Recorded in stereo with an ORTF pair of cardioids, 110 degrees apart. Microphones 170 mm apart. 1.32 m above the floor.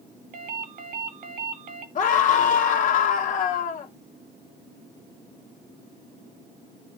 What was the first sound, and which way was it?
A ringtone, 55° right.